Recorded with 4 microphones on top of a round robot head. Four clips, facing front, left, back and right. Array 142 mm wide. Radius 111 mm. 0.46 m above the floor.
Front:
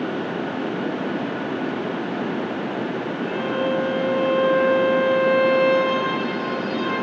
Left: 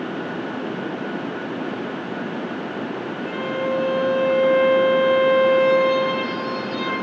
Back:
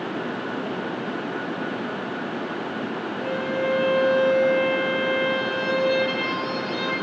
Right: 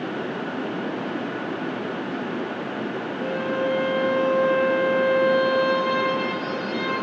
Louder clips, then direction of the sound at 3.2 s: Right 2 dB, front 1 dB; 130° right.